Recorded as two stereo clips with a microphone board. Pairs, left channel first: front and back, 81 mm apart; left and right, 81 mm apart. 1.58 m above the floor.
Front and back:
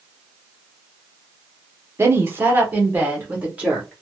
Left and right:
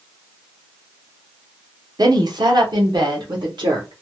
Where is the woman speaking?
120° right, 0.8 m; by 3.9 s 105° right, 1.8 m.